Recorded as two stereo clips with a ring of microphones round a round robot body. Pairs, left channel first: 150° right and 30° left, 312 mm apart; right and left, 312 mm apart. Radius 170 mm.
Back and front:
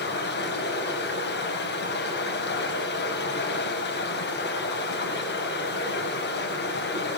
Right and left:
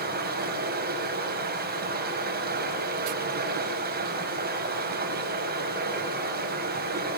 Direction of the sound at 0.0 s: 150° left.